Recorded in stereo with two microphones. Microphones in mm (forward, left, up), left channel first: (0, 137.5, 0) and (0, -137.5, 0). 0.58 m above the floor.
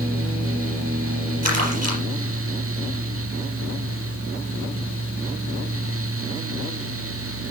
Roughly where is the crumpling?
Right.